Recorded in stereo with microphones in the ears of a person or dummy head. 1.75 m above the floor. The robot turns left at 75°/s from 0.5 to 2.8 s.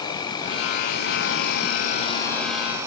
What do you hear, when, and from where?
0.0 s an insect: 150° left, 1.1 m; by 2.9 s 20° right, 1.1 m